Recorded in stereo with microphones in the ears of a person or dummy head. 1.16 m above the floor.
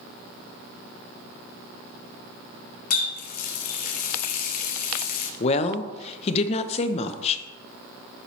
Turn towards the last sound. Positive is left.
turn(degrees=35)  # may be behind; listen again after turning